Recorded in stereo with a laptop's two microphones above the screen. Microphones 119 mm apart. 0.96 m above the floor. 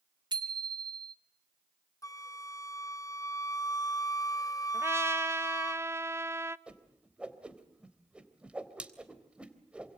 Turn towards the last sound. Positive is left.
turn(degrees=-10)  # may be behind; listen again after turning